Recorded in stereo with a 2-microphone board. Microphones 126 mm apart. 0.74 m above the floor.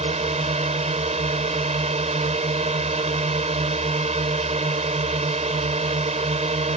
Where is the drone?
65° right (ahead or behind).